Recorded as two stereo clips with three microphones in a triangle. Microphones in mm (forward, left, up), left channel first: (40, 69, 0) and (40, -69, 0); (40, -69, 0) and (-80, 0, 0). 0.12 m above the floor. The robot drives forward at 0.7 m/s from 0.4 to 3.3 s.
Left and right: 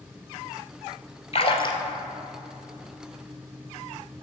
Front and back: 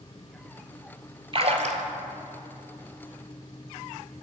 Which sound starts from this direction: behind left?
A splash, at 1.3 s.